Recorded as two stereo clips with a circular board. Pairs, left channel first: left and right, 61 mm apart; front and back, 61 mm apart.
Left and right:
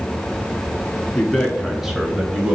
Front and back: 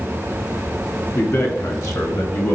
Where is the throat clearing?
No throat clearing in this recording.